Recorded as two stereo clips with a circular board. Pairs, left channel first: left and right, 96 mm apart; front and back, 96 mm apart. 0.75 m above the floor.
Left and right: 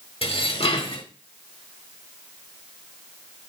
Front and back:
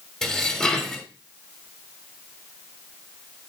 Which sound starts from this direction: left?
Dishes clattering, at 0.2 s.